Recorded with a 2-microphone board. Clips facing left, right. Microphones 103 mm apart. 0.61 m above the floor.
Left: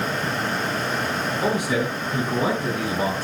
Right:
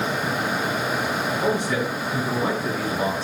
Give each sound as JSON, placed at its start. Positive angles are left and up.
{"t": 1.4, "sound": "a man speaking", "side_deg": 10, "distance_m": 6.5}